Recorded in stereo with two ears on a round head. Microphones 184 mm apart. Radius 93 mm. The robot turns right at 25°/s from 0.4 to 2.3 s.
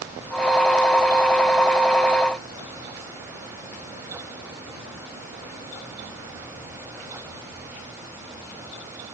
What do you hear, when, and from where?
Only background noise.